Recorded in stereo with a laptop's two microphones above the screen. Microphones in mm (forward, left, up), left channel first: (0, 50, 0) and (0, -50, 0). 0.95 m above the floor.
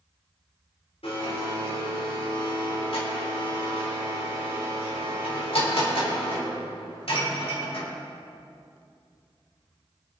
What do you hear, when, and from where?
1.0 s a blender: 75° left (ahead or behind), 3.5 m